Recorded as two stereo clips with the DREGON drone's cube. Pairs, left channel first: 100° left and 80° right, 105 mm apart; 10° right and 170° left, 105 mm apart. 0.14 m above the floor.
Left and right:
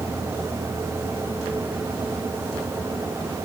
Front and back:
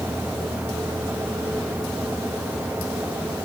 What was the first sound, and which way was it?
Only background noise.